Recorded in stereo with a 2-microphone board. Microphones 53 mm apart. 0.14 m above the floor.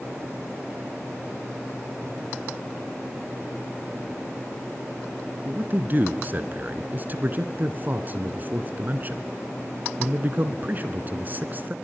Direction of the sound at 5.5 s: 35° right (ahead or behind).